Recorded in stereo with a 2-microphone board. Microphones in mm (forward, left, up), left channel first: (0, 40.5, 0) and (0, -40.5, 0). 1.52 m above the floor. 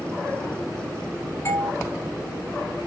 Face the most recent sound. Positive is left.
turn(degrees=35)  # may be behind; listen again after turning